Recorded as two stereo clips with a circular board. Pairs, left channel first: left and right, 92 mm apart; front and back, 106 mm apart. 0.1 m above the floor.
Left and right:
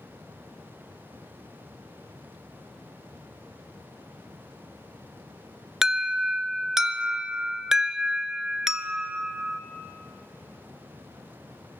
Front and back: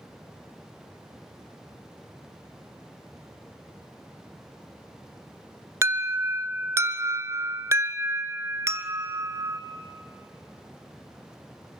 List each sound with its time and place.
5.8 s an alarm: 170° right, 0.8 m